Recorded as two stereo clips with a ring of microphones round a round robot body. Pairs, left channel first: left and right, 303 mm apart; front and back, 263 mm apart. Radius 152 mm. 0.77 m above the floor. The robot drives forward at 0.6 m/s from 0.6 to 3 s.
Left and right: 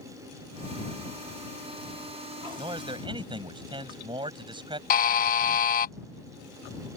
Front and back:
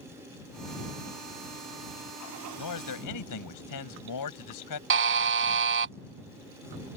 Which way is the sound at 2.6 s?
15° right.